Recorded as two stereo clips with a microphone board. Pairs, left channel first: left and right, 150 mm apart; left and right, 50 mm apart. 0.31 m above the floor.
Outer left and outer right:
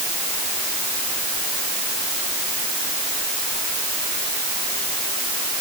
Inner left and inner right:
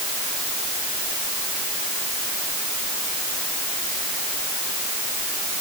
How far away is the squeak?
No squeak in this recording.